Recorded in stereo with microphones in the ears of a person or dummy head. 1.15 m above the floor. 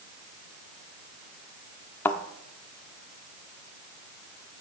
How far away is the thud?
About 1.1 m.